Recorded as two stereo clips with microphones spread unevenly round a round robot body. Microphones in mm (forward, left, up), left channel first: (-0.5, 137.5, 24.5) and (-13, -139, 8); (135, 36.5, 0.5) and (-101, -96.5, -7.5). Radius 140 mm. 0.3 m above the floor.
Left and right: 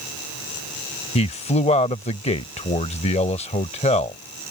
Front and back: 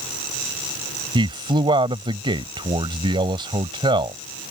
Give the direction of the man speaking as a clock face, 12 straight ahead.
7 o'clock.